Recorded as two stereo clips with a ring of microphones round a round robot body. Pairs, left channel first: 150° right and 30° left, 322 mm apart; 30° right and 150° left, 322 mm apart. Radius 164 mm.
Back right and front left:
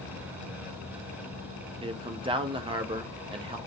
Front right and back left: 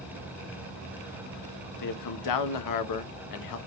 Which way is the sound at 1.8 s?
45° right.